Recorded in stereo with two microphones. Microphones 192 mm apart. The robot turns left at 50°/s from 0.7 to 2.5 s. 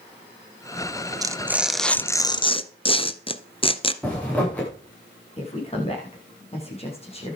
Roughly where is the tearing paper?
Behind right.